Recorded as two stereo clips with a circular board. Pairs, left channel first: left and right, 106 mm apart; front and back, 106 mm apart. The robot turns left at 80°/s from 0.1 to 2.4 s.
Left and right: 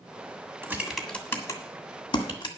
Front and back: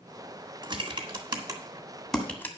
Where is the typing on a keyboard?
150° right, 1.7 m; by 2.5 s 65° left, 1.7 m.